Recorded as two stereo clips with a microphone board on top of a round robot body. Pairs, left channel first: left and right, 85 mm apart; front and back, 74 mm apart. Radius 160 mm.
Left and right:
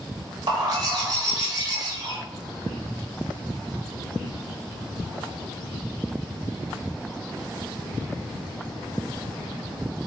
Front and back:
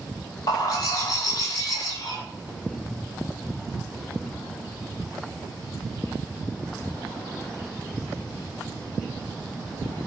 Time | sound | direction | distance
0.5 | a bird | 45° right | 0.8 m